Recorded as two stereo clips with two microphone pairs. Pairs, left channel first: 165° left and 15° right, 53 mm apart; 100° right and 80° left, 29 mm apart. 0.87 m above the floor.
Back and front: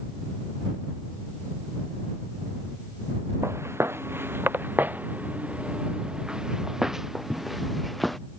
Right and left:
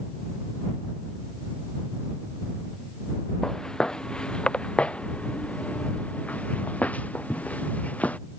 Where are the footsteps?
35° right; by 8.2 s 105° right.